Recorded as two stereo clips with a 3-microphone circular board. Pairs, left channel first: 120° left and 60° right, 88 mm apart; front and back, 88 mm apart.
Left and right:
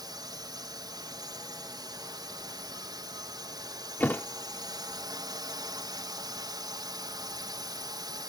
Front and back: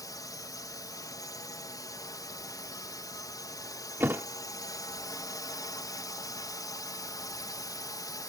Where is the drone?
35° right.